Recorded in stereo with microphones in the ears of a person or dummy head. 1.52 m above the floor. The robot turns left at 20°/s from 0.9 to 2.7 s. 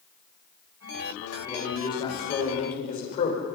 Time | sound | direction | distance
1.4 | a man speaking | 20° left (ahead or behind) | 6.5 m